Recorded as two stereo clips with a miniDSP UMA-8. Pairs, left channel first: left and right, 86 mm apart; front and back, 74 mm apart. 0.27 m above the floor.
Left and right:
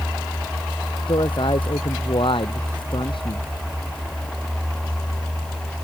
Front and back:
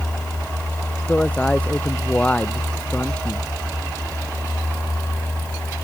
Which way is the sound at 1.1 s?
75° left.